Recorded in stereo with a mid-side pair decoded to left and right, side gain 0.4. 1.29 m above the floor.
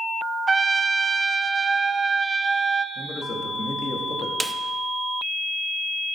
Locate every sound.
0.5 s a trumpet: 35° right, 0.5 m
3.0 s a man speaking: 40° left, 2 m
4.4 s a snare drum: 10° right, 0.6 m